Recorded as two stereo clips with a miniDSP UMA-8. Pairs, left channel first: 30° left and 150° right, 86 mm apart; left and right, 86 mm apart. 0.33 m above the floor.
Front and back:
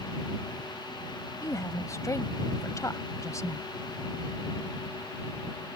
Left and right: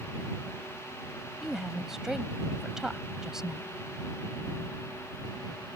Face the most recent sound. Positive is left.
turn(degrees=-5)